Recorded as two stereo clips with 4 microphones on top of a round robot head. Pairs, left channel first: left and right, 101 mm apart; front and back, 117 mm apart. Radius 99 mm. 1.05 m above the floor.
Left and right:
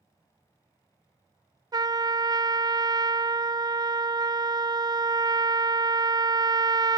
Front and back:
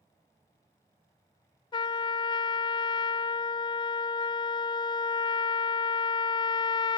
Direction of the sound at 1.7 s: 45° right.